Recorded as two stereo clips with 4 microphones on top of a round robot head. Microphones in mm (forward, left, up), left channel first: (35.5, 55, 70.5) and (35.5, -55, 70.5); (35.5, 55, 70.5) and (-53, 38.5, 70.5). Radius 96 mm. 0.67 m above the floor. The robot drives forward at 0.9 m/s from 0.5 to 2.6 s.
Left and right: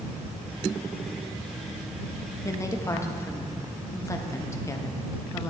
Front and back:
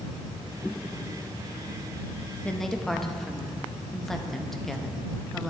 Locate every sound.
2.5 s a woman speaking: 75° left, 0.8 m; by 5.5 s 95° left, 0.8 m